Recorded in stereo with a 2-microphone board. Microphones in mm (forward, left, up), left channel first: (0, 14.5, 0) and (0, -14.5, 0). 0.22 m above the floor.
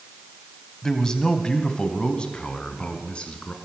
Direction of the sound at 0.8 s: 20° left (ahead or behind).